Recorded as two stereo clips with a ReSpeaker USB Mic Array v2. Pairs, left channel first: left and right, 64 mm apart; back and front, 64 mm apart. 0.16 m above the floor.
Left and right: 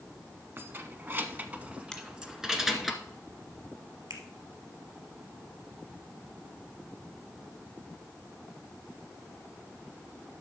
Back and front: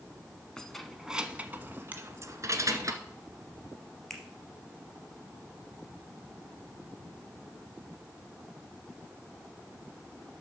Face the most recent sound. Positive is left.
turn(degrees=-95)